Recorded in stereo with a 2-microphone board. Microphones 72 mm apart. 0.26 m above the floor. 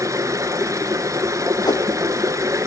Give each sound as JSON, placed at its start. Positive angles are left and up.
{"t": 0.0, "sound": "running water", "side_deg": -45, "distance_m": 1.5}
{"t": 1.6, "sound": "a whoosh", "side_deg": 70, "distance_m": 1.0}